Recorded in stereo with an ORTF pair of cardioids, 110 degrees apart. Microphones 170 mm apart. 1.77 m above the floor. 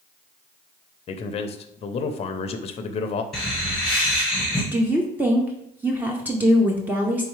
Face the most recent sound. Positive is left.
turn(degrees=-10)